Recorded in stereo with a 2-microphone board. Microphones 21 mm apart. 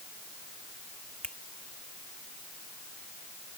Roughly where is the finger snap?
Left.